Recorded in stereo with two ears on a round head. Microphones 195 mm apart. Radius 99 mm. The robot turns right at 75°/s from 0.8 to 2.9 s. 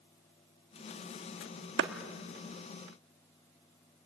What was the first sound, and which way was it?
A clap, 50° right (ahead or behind).